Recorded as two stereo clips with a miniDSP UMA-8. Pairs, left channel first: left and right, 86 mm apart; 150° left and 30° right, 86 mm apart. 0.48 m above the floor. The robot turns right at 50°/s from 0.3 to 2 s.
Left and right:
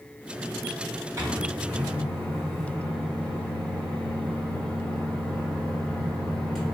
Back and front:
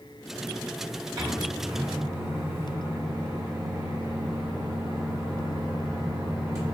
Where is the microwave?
35° right, 1.4 m; by 6.8 s 5° left, 1.4 m.